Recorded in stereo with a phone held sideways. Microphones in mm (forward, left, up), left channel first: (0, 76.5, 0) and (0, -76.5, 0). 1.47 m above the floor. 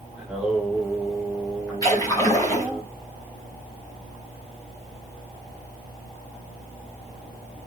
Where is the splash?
25° left (ahead or behind), 5 m.